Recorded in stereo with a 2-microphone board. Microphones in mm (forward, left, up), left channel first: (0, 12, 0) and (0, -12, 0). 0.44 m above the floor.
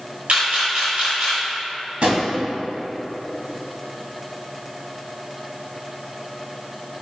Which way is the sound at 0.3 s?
60° right (ahead or behind).